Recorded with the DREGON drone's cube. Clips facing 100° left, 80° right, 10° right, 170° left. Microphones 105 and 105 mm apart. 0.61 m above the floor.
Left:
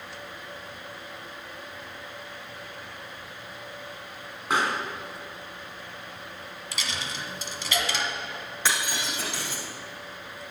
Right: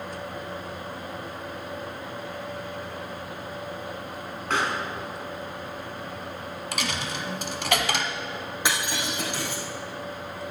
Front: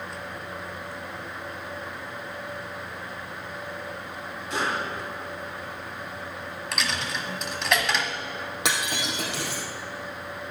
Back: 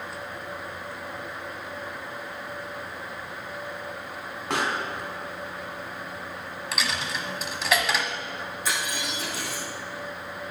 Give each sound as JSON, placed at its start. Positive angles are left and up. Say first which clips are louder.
{"t": 4.5, "sound": "a pop", "louder": "left 1 dB, back 1 dB", "azimuth_deg": 175, "distance_m": 2.5}
{"t": 6.7, "sound": "a dropped coin", "louder": "right 4 dB, even", "azimuth_deg": -105, "distance_m": 1.2}
{"t": 8.7, "sound": "breaking glass", "louder": "right 1 dB, front 2 dB", "azimuth_deg": -5, "distance_m": 4.0}